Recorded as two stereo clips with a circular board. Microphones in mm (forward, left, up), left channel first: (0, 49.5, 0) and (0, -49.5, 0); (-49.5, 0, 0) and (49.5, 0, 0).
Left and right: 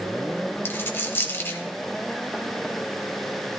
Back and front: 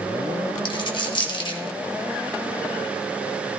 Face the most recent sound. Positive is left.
turn(degrees=155)